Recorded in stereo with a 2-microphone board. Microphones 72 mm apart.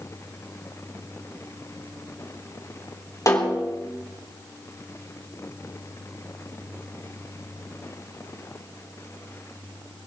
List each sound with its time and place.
3.3 s a snare drum: 45° left (ahead or behind), 3.5 m